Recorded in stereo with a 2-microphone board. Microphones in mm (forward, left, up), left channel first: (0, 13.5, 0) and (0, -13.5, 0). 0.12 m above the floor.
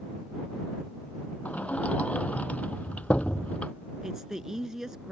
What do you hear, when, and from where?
1.4 s a sliding door: 60° left (ahead or behind)
4.0 s a woman speaking: 20° right (ahead or behind)